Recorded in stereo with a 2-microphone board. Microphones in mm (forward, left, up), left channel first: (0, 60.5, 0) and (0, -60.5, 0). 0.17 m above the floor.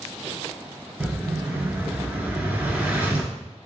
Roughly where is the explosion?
Centre.